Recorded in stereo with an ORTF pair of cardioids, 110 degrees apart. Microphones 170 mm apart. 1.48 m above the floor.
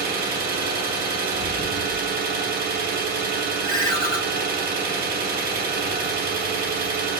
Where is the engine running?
65° right, 0.8 m.